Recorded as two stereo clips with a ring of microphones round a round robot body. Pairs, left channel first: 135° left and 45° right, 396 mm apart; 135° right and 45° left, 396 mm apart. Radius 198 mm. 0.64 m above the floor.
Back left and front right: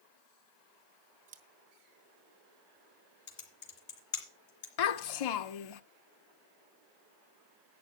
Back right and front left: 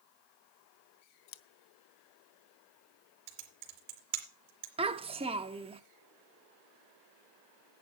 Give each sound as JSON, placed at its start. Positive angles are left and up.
{"t": 1.3, "sound": "scissors", "azimuth_deg": -120, "distance_m": 0.8}
{"t": 3.3, "sound": "typing on a keyboard", "azimuth_deg": 80, "distance_m": 3.0}
{"t": 4.8, "sound": "a child speaking", "azimuth_deg": 120, "distance_m": 0.8}